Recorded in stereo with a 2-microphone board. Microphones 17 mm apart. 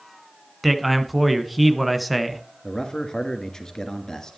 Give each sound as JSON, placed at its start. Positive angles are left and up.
{"t": 0.6, "sound": "a man speaking", "side_deg": -5, "distance_m": 1.4}
{"t": 2.6, "sound": "a man speaking", "side_deg": 50, "distance_m": 2.5}